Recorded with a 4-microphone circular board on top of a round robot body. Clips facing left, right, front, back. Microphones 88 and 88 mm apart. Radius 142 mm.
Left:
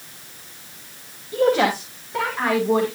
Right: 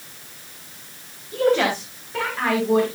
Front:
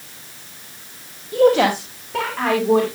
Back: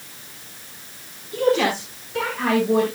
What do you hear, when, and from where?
1.3 s a woman speaking: 15° left, 3.5 m; by 2.9 s 10° left, 5.5 m